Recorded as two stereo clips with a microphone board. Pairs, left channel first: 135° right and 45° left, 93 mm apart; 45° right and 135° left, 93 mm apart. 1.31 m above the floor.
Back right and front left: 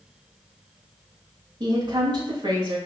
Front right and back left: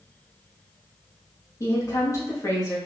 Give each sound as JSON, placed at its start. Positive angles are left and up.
{"t": 1.6, "sound": "a woman speaking", "azimuth_deg": 10, "distance_m": 2.5}